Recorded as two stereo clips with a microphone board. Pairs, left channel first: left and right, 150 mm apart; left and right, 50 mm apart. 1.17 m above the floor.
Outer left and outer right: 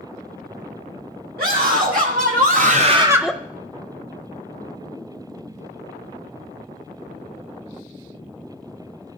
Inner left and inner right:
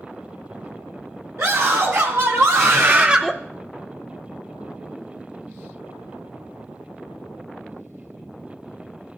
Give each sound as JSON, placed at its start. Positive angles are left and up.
{"t": 1.4, "sound": "a scream", "side_deg": -75, "distance_m": 1.9}